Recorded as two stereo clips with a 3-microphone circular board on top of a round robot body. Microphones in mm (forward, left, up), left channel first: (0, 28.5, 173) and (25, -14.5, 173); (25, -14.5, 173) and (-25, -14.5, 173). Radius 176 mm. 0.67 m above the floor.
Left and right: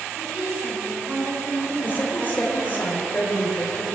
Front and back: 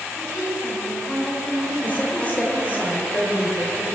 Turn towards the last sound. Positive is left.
turn(degrees=65)